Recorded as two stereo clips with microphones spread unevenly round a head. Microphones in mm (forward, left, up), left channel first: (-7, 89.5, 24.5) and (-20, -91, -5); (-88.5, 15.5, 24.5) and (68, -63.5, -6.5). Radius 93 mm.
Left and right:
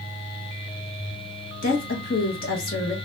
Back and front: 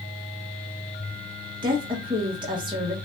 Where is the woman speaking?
40° left, 1.5 m.